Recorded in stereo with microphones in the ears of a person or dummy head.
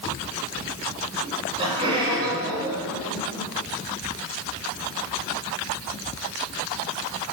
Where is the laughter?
30° right (ahead or behind), 9 m; by 3.5 s 15° right (ahead or behind), 11 m.